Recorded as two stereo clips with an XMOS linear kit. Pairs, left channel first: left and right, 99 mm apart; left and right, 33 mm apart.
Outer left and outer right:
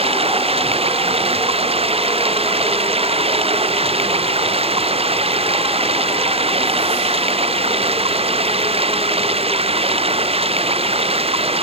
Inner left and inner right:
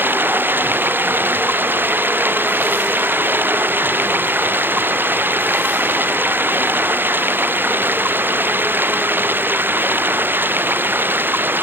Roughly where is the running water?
Right.